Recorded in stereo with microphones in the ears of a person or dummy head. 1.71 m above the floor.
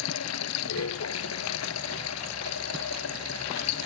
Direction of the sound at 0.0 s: 85° left.